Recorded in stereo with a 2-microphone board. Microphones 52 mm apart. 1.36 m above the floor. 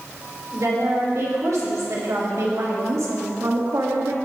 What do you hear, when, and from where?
0.5 s a woman speaking: 80° right, 4 m; by 4.2 s 85° right, 1.6 m